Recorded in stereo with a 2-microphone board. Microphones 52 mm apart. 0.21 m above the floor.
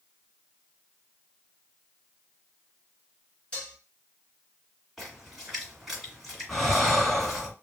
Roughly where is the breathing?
Centre.